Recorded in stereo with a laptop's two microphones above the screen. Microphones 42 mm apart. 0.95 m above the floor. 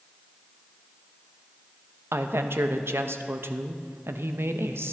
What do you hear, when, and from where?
2.1 s a woman speaking: 65° right (ahead or behind), 0.5 m